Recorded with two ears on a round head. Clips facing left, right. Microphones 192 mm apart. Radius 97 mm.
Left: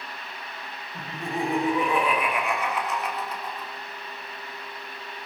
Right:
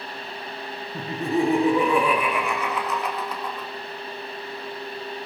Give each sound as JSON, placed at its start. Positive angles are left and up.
{"t": 0.9, "sound": "laughter", "side_deg": -75, "distance_m": 2.5}